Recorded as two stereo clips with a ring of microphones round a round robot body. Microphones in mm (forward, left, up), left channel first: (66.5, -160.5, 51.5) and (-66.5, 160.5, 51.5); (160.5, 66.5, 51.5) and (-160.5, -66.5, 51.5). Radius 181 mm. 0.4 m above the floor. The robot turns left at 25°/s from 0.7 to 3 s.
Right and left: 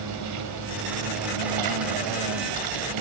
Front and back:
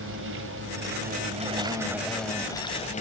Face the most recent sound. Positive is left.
turn(degrees=90)